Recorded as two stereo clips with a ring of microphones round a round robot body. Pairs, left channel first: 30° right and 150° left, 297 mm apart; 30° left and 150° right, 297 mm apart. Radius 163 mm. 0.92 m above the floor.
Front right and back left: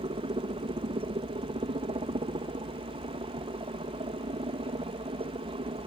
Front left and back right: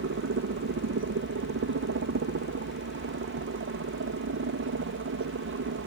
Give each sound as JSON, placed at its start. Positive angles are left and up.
{"t": 0.0, "sound": "a helicopter", "azimuth_deg": -150}